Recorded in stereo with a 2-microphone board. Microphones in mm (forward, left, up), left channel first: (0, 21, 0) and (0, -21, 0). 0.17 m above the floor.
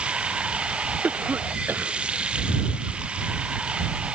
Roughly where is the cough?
Right.